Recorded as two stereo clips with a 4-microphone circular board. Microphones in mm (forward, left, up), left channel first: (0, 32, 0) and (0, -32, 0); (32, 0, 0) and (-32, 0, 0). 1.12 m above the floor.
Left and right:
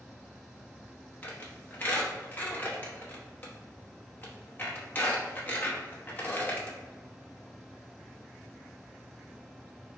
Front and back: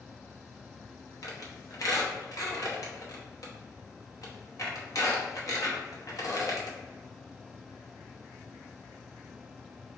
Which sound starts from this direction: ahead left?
A squeak, at 1.2 s.